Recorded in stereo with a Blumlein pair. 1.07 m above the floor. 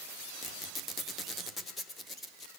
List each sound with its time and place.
0.4 s a squeak: 15° left, 0.9 m